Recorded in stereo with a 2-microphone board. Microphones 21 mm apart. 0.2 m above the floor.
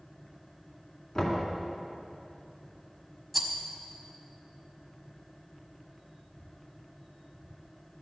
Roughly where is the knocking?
Left.